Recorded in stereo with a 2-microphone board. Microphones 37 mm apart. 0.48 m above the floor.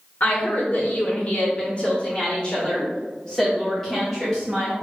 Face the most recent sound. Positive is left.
turn(degrees=5)  # may be behind; listen again after turning